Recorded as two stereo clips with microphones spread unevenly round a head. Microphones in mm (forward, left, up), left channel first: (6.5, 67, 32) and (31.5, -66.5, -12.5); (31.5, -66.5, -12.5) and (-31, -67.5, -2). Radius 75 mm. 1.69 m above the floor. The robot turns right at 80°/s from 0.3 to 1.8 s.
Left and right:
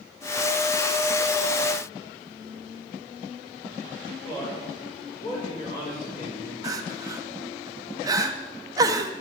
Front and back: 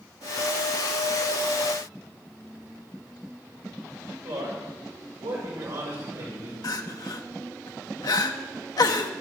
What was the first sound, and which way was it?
A man speaking, 160° left.